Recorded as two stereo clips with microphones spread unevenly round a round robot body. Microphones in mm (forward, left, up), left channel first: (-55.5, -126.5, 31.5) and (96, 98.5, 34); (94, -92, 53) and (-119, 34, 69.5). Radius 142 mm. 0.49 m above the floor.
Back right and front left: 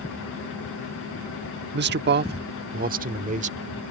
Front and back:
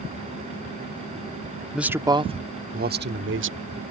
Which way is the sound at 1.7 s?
60° left.